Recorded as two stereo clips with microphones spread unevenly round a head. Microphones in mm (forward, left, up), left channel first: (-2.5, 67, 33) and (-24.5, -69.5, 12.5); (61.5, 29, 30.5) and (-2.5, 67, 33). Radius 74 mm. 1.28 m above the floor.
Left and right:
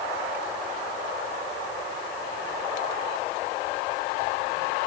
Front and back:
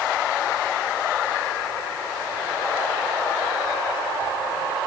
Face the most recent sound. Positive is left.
No sound to turn to.